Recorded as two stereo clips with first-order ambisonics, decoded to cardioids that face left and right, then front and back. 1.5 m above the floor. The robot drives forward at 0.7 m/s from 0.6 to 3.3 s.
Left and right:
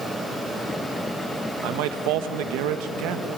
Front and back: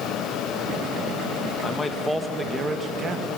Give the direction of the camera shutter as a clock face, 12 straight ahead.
I don't hear a camera shutter.